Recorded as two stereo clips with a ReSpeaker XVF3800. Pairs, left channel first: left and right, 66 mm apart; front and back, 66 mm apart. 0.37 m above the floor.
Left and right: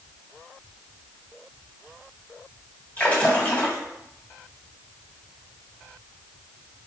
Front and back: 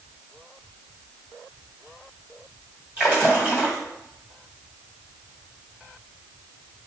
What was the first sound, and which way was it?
A splash, 135° left.